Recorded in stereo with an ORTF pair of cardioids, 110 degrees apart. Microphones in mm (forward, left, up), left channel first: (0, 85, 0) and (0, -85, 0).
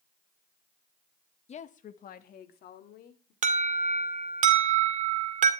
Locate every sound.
1.5 s a woman speaking: 40° left, 1.2 m; by 3.3 s 70° left, 3.5 m
3.4 s an alarm: 50° right, 2 m